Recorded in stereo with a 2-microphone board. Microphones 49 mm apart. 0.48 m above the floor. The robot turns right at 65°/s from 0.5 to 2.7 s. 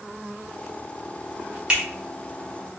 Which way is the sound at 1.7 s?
25° right (ahead or behind).